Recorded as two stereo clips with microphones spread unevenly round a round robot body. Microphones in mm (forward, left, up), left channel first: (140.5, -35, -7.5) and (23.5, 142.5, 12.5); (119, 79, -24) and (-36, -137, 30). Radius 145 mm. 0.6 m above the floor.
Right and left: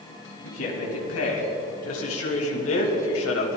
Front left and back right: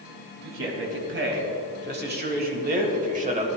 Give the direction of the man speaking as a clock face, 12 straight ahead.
3 o'clock.